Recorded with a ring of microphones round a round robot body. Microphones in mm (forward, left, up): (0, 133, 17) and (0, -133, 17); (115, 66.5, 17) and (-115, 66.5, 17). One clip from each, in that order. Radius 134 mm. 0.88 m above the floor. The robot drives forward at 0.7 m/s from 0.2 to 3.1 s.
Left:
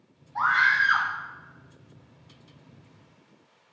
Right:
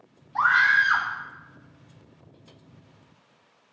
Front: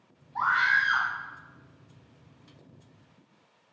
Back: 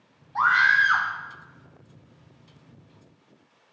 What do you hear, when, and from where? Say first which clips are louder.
0.3 s a scream: right 2 dB, back 5 dB; 135° right, 2.5 m; by 1.1 s 145° right, 3 m